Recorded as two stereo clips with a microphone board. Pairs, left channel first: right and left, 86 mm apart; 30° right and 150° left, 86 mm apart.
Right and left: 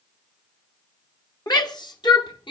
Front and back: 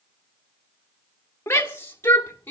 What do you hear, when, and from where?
1.5 s a shout: 85° right, 1.7 m; by 2.5 s 95° right, 2.5 m